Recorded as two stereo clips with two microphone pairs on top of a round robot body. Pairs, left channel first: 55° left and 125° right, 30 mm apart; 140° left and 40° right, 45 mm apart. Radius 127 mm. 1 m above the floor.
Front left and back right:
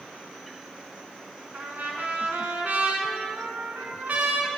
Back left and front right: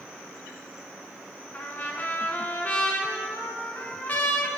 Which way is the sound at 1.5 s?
160° right.